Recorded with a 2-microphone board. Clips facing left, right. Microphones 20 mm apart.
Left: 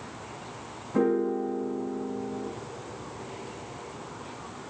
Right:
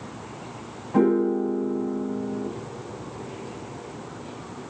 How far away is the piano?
About 1.8 m.